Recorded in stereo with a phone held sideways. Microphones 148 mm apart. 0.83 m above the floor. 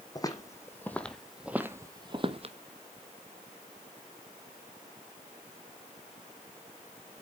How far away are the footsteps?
About 1.7 m.